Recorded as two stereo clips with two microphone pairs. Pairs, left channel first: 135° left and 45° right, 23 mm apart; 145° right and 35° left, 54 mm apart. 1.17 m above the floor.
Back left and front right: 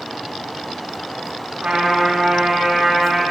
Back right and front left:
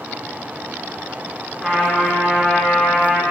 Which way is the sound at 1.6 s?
55° right.